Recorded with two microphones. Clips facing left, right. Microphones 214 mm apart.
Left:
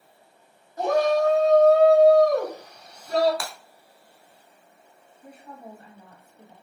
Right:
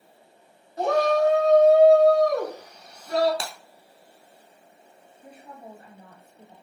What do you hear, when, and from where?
0.8 s a shout: 25° right (ahead or behind), 1.5 m; by 3.3 s 5° right (ahead or behind), 2.5 m
3.4 s breaking glass: 25° right (ahead or behind), 0.7 m
5.2 s a woman speaking: 30° right (ahead or behind), 1.5 m